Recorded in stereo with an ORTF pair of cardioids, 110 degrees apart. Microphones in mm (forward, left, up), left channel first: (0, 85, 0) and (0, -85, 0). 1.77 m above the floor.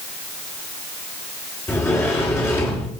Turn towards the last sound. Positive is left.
turn(degrees=15)